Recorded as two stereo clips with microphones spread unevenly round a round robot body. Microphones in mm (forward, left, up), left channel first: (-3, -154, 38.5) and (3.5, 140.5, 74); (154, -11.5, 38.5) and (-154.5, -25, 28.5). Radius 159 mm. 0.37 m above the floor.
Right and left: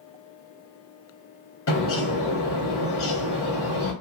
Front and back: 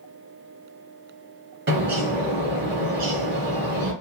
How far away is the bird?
About 2.5 m.